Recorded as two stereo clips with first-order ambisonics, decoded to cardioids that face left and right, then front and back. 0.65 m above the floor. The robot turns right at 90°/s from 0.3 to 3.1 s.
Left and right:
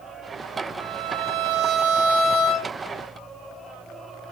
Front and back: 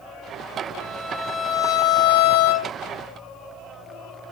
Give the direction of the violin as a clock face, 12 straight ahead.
4 o'clock.